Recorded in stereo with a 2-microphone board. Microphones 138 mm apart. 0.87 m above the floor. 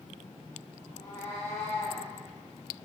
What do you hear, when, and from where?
0.9 s a cat meowing: 20° left (ahead or behind), 1.5 m